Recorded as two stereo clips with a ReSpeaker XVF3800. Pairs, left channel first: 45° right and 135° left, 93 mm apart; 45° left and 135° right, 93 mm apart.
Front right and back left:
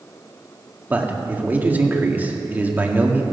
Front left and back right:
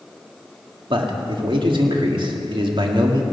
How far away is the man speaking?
About 1.9 m.